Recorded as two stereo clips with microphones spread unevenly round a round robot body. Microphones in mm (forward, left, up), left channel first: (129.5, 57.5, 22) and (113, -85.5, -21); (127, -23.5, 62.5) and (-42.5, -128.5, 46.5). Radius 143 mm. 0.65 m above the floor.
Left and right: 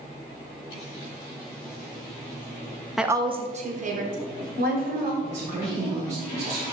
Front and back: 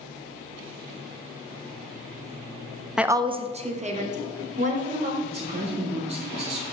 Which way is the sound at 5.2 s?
95° right.